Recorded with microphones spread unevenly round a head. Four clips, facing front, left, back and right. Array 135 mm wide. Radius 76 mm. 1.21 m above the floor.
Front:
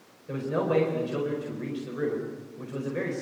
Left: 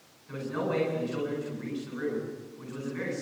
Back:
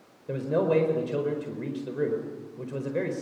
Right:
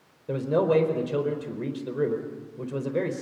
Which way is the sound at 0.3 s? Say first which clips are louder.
Right 9 dB, back 2 dB; 115° right.